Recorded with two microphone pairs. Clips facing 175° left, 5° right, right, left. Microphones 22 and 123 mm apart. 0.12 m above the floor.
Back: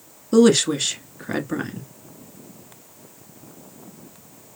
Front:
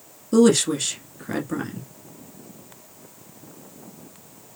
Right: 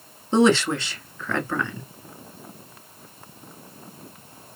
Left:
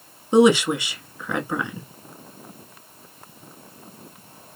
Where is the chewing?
No chewing in this recording.